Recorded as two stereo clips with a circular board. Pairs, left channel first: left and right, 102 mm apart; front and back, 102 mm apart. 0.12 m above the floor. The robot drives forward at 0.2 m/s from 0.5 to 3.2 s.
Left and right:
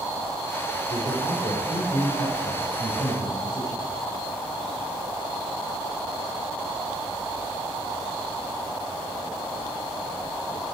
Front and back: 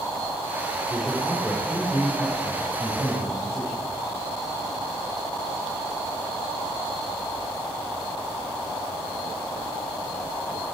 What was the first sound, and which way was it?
A man speaking, 105° left.